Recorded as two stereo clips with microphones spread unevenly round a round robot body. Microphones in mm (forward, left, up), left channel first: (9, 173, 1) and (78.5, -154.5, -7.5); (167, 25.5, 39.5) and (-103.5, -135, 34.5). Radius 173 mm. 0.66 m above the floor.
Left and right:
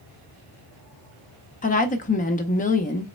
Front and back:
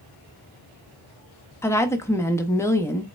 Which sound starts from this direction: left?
A woman speaking, at 1.6 s.